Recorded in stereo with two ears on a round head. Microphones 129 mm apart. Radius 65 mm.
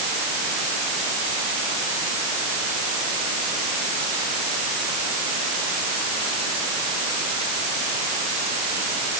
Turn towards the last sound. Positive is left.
No sound to turn to.